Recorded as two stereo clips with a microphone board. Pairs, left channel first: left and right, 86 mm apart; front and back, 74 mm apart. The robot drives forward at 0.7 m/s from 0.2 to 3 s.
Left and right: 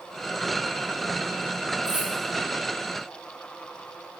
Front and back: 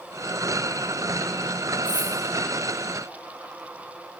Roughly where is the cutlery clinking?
Right.